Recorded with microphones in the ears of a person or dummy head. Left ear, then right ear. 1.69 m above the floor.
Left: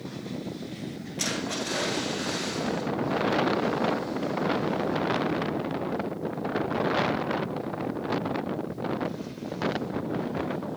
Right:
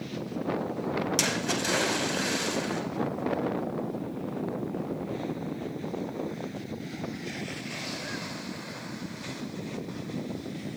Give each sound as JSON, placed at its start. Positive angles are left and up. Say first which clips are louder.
{"t": 1.2, "sound": "a splash", "louder": "left 2 dB", "side_deg": -75, "distance_m": 4.5}